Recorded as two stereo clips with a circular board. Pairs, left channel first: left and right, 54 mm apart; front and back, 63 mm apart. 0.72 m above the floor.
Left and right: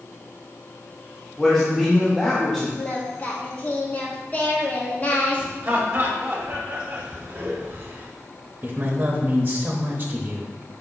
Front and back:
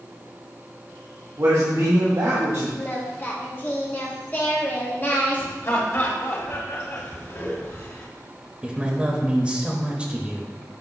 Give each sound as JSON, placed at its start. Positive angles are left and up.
{"t": 1.4, "sound": "a man speaking", "azimuth_deg": 170, "distance_m": 1.9}
{"t": 2.8, "sound": "singing", "azimuth_deg": 45, "distance_m": 1.3}
{"t": 5.6, "sound": "laughter", "azimuth_deg": -35, "distance_m": 1.8}
{"t": 8.6, "sound": "a man speaking", "azimuth_deg": -115, "distance_m": 0.9}